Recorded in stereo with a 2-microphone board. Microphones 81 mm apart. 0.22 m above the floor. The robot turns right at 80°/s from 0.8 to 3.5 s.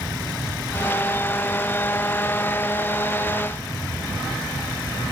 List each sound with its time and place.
Only background noise.